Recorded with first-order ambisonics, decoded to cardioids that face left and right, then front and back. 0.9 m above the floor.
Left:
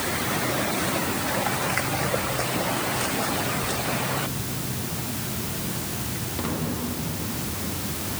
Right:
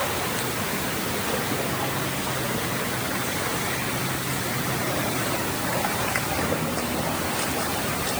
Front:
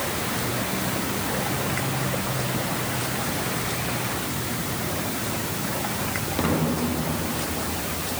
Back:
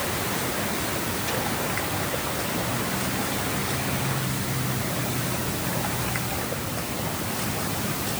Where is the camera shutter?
I don't hear a camera shutter.